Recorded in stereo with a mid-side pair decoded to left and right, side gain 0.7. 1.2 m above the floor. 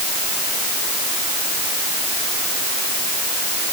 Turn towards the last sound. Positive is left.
No sound to turn to.